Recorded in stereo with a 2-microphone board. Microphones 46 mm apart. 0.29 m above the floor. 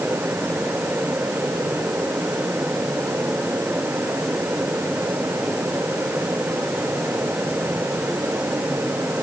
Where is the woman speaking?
I don't hear a woman speaking.